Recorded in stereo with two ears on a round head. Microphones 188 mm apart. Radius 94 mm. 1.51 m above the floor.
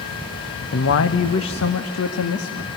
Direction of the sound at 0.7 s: 65° left (ahead or behind).